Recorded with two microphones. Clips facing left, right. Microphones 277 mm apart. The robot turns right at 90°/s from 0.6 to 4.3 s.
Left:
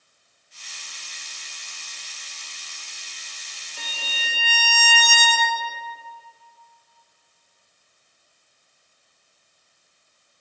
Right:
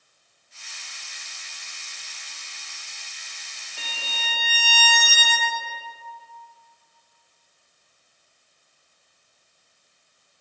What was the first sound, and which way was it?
A violin, 65° left.